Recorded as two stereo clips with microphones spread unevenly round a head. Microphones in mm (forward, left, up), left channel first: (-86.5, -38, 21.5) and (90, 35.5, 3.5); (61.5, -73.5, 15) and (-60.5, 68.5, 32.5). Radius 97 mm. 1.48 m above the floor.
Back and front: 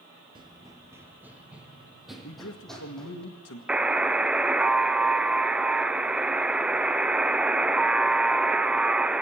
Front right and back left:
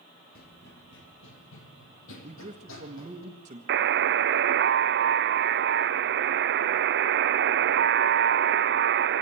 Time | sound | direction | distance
0.3 | running footsteps | 40° right | 1.8 m
2.2 | a man speaking | 175° right | 1.7 m
3.7 | a buzzer | 105° left | 0.7 m